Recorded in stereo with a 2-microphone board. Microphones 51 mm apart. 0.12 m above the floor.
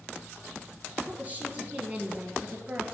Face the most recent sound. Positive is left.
turn(degrees=-30)  # may be behind; listen again after turning